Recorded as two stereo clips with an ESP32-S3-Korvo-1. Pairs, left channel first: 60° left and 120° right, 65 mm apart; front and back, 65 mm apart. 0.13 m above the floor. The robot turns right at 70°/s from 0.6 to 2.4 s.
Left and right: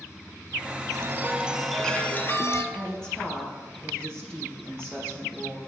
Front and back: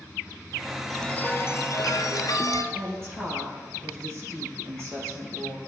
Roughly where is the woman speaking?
Behind left.